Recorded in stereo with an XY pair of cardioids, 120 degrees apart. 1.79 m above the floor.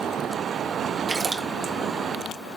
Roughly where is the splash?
Ahead right.